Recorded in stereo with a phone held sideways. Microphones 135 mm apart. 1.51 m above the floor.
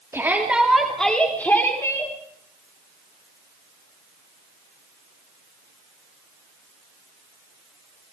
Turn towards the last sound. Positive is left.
turn(degrees=25)  # may be behind; listen again after turning